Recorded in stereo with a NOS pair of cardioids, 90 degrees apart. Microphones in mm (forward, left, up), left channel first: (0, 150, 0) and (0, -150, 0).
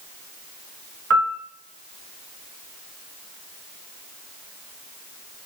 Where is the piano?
50° right, 1.6 m.